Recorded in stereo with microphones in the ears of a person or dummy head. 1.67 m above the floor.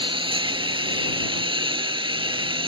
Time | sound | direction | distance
0.0 | a lawn mower | 20° right (ahead or behind) | ?